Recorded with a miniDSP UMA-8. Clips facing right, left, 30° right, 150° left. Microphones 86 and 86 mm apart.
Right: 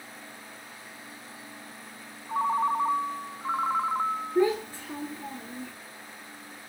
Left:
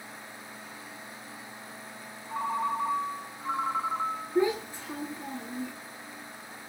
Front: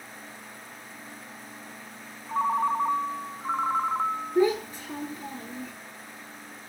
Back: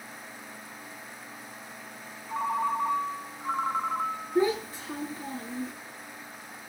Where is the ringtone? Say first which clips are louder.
Right 4 dB, front 3 dB; 80° right, 0.7 m.